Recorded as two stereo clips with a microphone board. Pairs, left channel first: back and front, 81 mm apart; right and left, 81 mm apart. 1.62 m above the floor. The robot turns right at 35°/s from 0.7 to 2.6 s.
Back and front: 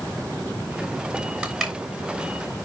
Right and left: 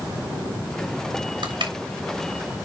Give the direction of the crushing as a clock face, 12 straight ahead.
9 o'clock.